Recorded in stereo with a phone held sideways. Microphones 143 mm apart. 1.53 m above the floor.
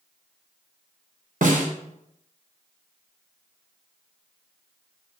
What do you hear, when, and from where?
1.4 s a snare drum: 65° right (ahead or behind), 1.5 m